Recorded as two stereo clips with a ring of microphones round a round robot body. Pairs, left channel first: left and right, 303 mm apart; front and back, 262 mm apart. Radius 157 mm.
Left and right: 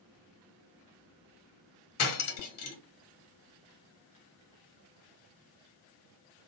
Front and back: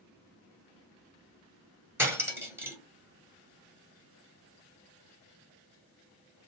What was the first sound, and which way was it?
Cutlery clinking, 100° left.